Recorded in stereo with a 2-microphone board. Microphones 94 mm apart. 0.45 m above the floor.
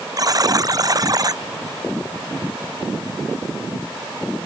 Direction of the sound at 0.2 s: 40° right (ahead or behind).